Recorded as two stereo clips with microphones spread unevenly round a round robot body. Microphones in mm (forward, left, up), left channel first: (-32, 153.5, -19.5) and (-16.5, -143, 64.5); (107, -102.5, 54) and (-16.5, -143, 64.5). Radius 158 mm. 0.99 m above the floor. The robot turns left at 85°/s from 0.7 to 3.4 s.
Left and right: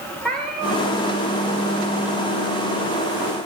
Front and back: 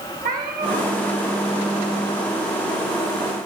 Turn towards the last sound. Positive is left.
turn(degrees=-45)